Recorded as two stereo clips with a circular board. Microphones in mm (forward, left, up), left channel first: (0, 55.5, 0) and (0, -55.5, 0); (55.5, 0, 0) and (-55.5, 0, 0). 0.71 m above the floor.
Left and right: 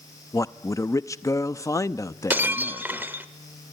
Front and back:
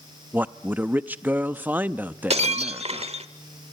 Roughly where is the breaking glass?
Behind.